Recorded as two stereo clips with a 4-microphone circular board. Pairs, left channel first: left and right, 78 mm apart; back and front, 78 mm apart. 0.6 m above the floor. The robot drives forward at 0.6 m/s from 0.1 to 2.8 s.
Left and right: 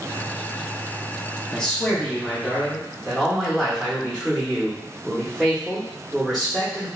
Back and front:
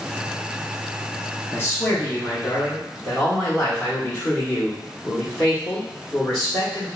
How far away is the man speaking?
About 0.6 m.